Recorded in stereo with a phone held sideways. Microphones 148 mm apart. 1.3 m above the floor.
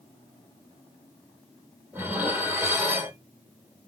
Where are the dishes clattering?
15° right (ahead or behind), 1.6 m.